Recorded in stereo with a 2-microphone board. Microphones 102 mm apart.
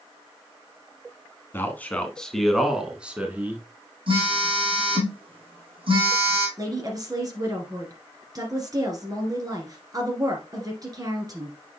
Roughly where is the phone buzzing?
Right.